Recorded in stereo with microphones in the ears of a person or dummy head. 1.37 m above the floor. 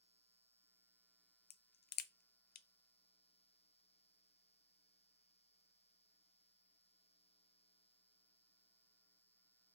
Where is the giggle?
I don't hear a giggle.